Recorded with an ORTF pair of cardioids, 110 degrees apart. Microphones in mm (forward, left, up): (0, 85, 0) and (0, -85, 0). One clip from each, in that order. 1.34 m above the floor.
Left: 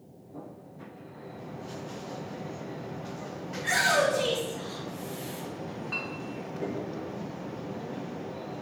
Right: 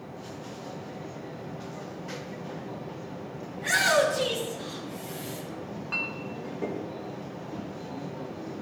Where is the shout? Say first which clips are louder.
Right 2 dB; 20° right, 3 m; by 5.4 s 40° right, 1.8 m.